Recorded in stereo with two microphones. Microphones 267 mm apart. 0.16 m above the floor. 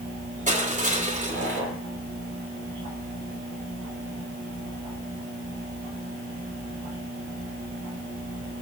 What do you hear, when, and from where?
0.5 s crushing: 30° right (ahead or behind), 5 m